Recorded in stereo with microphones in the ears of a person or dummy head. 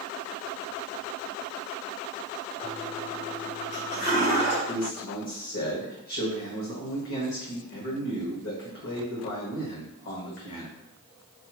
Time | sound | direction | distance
2.6 | a toilet flushing | 50° left (ahead or behind) | 1.3 m
4.7 | a man speaking | 55° left (ahead or behind) | 1.0 m